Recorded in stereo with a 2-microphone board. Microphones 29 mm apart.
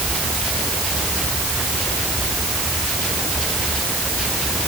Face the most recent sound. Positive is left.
No sound to turn to.